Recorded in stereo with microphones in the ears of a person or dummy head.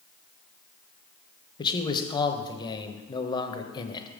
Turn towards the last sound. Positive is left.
turn(degrees=25)  # may be behind; listen again after turning